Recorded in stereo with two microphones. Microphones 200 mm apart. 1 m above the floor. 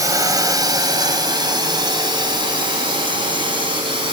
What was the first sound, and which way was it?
A drone, 15° right (ahead or behind).